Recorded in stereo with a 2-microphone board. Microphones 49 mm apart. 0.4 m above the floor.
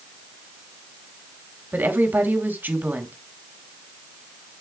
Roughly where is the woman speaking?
Right.